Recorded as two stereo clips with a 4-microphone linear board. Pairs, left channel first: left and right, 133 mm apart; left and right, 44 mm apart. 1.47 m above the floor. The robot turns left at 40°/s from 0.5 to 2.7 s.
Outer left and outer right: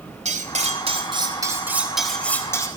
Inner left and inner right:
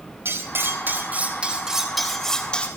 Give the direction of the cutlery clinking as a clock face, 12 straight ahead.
4 o'clock.